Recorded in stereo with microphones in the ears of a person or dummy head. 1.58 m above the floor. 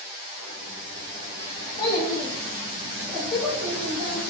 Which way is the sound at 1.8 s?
30° left (ahead or behind).